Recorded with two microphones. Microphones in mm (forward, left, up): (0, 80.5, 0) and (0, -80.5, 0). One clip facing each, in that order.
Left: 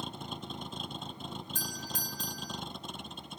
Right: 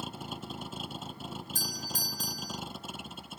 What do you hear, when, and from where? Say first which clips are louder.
0.0 s a vehicle: right 1 dB; 5° right (ahead or behind)
1.6 s a doorbell: right 1 dB; 40° right (ahead or behind)